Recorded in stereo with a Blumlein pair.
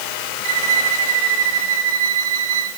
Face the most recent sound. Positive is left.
turn(degrees=-55)